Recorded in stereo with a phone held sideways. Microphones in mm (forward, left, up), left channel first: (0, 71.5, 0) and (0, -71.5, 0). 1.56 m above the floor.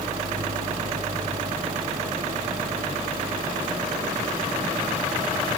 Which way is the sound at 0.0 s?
85° right.